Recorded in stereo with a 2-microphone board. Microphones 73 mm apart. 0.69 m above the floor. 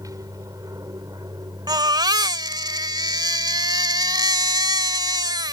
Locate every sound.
0.0 s an aircraft: 50° right (ahead or behind); by 5.5 s 65° right (ahead or behind)
1.7 s a baby crying: 80° right